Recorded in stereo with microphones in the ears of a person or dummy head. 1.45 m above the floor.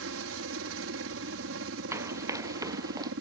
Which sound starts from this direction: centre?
Running footsteps, at 1.9 s.